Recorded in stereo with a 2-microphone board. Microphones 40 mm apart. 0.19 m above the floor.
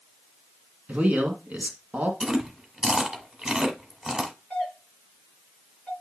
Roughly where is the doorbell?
Centre.